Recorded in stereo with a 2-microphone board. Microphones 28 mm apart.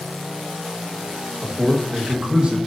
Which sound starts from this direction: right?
A man speaking, at 1.4 s.